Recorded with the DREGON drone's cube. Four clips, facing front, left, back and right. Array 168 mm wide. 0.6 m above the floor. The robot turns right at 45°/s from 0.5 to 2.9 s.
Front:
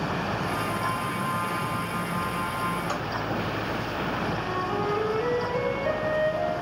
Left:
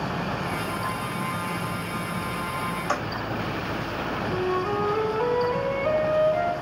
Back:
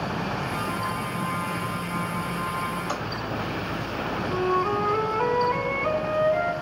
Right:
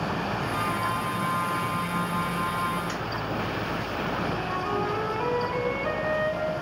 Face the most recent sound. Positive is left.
turn(degrees=165)